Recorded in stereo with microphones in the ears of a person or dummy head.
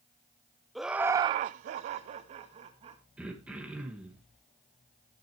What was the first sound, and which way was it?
Laughter, centre (ahead or behind).